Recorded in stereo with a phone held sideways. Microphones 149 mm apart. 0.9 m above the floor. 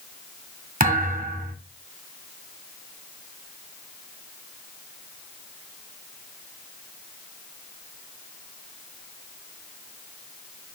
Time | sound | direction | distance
0.8 | a thud | 70° right (ahead or behind) | 1.6 m